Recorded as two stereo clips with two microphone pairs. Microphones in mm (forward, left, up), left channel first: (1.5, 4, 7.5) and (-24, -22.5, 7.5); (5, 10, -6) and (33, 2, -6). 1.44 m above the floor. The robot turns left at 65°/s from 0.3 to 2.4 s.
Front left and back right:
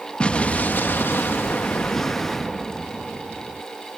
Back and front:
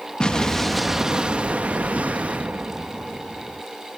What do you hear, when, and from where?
0.2 s an explosion: 105° left; by 3.6 s 35° right